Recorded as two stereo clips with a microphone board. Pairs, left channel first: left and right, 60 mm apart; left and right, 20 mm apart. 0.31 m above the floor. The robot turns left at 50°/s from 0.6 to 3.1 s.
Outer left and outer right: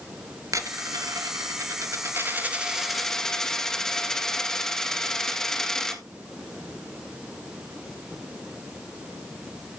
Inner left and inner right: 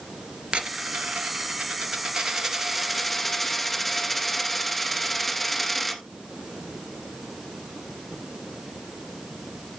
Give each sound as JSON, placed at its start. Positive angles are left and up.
{"t": 0.5, "sound": "a dropped coin", "azimuth_deg": -65, "distance_m": 1.7}